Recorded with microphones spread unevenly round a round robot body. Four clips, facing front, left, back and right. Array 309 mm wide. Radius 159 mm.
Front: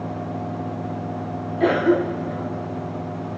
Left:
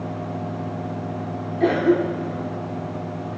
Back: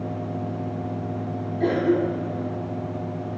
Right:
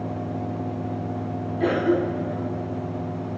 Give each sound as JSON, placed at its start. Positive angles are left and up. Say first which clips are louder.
{"t": 1.6, "sound": "a cough", "louder": "left 3 dB, front 3 dB", "azimuth_deg": 25, "distance_m": 0.8}